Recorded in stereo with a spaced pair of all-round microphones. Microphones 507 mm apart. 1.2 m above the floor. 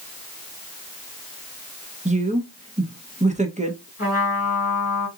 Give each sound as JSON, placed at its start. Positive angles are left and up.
{"t": 2.0, "sound": "a woman speaking", "side_deg": -15, "distance_m": 0.8}
{"t": 4.0, "sound": "a trumpet", "side_deg": 30, "distance_m": 1.5}